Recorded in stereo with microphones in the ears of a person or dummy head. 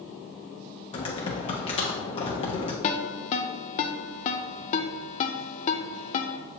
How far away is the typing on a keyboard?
About 0.9 m.